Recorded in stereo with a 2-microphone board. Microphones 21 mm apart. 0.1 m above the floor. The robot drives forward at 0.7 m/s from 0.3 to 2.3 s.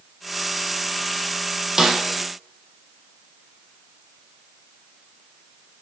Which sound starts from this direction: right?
A snare drum, at 1.8 s.